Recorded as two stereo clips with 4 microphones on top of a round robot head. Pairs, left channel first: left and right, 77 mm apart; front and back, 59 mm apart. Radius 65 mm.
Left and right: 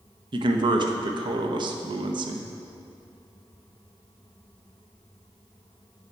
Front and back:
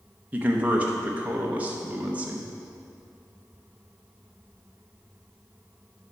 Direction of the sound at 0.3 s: 110° right.